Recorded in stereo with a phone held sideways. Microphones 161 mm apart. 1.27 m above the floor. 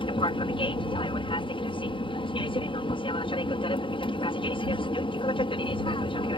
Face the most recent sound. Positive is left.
turn(degrees=35)  # may be behind; listen again after turning